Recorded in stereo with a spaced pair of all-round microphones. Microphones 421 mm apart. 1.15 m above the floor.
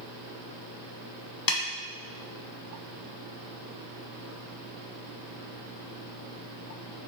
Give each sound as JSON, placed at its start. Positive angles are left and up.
{"t": 1.5, "sound": "a snare drum", "side_deg": 55, "distance_m": 0.6}